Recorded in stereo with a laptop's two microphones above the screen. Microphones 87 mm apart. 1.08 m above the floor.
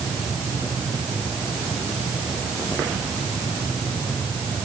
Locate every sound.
Only background noise.